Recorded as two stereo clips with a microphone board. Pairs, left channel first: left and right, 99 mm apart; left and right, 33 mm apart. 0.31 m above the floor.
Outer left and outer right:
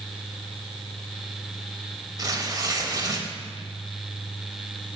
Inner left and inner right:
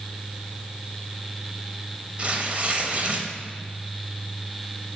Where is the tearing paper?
35° right (ahead or behind), 0.9 m.